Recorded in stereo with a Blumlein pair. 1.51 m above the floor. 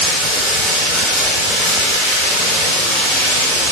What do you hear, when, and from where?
0.0 s running water: 30° right, 2 m